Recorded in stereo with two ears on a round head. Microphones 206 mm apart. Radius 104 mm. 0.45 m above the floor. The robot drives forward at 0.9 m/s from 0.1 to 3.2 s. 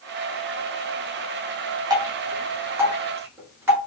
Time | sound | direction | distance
1.9 | dripping | 20° right (ahead or behind) | 1.7 m